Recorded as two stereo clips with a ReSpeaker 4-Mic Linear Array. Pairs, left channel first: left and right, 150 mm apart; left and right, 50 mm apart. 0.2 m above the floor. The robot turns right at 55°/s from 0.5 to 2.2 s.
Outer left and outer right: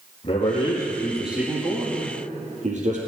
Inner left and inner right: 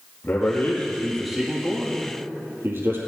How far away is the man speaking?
About 4.5 m.